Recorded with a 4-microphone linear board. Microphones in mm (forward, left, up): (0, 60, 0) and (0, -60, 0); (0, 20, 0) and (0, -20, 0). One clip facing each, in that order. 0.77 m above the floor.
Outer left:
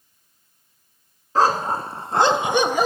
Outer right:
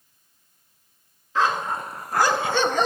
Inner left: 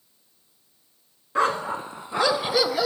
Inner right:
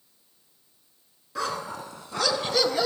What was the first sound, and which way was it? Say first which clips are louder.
A dog barking: outer left 4 dB, inner left 7 dB; 40° left (ahead or behind).